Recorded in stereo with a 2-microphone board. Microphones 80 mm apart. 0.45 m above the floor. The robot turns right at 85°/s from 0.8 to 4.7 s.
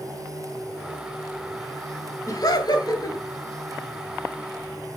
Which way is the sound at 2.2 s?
55° left.